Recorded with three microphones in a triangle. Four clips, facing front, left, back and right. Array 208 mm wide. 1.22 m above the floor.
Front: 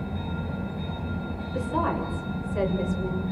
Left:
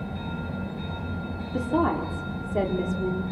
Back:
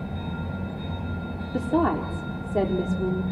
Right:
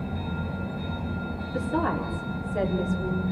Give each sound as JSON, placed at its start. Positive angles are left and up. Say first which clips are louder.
{"t": 1.5, "sound": "a woman speaking", "louder": "left 3 dB, back 4 dB", "azimuth_deg": 155, "distance_m": 4.0}